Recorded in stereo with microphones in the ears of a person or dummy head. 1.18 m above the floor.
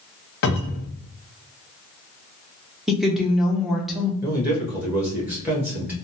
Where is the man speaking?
10° right (ahead or behind), 1.3 m.